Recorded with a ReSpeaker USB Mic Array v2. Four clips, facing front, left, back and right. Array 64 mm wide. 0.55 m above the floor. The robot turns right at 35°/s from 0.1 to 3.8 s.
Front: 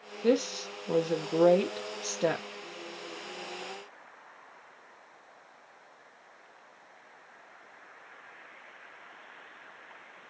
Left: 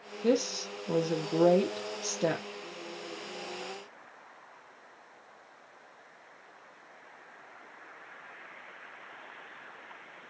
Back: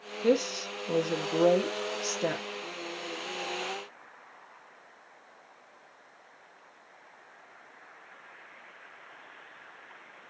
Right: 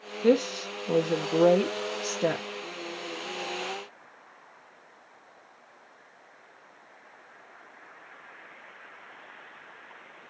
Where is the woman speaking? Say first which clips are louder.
Right 5 dB, back 1 dB; 80° right, 0.6 m; by 2.5 s 5° right, 0.6 m.